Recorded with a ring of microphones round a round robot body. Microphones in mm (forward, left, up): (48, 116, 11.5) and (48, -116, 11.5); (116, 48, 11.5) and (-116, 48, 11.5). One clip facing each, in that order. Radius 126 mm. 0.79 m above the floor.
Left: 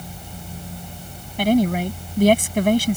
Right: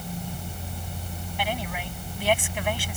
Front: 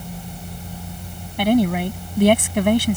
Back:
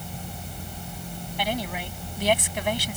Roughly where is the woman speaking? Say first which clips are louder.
Left 16 dB, front 14 dB; ahead left.